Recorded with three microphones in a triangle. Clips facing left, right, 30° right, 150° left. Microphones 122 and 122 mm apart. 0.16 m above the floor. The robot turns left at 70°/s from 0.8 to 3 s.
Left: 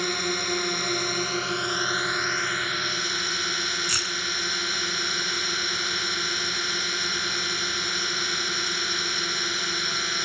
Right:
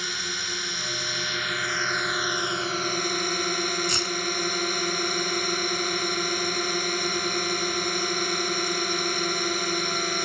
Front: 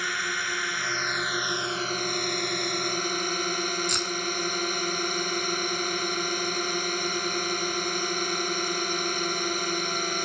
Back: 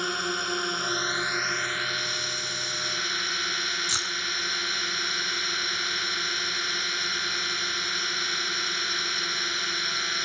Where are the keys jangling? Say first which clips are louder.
Right 4 dB, front 5 dB; 130° right.